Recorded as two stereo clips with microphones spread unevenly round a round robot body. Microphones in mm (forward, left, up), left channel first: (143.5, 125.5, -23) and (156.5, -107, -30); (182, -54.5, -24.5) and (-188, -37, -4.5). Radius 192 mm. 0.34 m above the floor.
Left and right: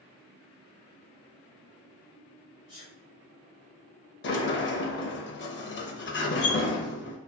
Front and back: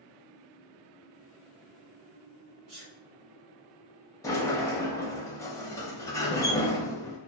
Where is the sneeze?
145° right, 2 m.